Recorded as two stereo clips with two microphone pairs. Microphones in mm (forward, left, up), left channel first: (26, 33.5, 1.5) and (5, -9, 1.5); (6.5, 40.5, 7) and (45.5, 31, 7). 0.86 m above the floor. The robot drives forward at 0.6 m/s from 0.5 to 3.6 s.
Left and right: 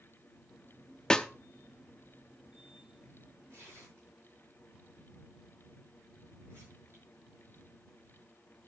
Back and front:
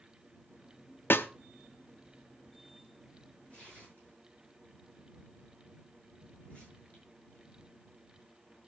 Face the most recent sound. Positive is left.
turn(degrees=-140)